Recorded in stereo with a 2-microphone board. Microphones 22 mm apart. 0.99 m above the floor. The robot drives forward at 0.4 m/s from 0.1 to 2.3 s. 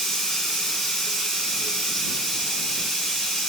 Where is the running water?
20° left (ahead or behind), 1.9 m; by 3.5 s 10° left (ahead or behind), 2.5 m.